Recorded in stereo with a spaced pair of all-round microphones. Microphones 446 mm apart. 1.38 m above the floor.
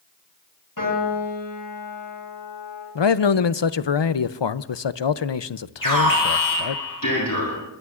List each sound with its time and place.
0.8 s a piano: 50° left (ahead or behind), 8.5 m
3.0 s a man speaking: 70° left (ahead or behind), 0.6 m
5.8 s an alarm: 45° left (ahead or behind), 7 m